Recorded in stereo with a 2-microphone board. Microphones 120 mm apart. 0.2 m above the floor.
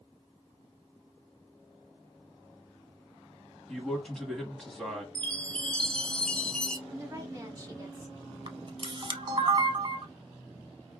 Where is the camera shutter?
40° right (ahead or behind), 0.5 m.